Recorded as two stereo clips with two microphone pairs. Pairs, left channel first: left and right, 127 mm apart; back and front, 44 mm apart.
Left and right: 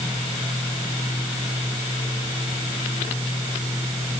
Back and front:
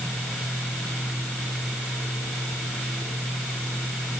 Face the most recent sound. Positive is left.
No sound to turn to.